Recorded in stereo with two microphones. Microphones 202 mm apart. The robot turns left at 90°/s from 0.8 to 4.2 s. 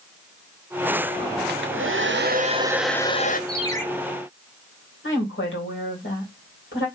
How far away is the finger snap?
No finger snap in this recording.